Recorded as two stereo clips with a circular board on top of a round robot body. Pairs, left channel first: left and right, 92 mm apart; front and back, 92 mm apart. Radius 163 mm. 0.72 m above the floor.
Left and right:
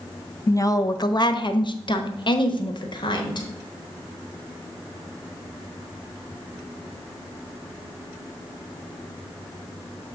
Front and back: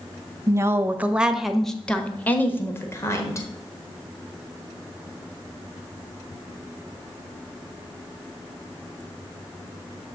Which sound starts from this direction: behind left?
A woman speaking, at 0.5 s.